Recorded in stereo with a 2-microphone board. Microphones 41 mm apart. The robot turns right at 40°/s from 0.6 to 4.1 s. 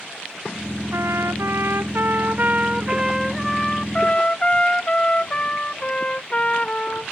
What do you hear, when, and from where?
0.9 s a trumpet: 100° right; by 7.1 s 25° left